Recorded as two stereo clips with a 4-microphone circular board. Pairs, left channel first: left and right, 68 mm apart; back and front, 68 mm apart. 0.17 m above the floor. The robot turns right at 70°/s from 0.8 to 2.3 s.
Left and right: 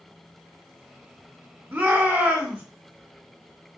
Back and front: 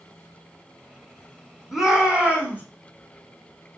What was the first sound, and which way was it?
A shout, 85° right.